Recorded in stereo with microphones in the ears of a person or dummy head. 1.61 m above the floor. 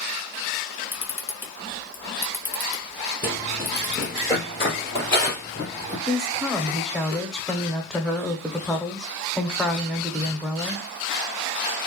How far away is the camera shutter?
About 1.1 m.